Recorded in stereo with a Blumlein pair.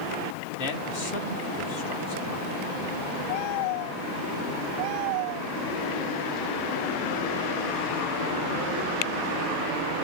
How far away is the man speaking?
About 1.9 m.